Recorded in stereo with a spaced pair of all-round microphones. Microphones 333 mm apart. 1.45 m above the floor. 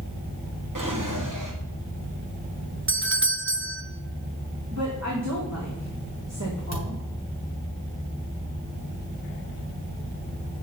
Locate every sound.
0.8 s a drawer: 65° right (ahead or behind), 1.8 m
2.9 s a doorbell: 40° right (ahead or behind), 0.6 m
4.7 s a woman speaking: 50° right (ahead or behind), 2.5 m
6.7 s a thud: 50° right (ahead or behind), 3 m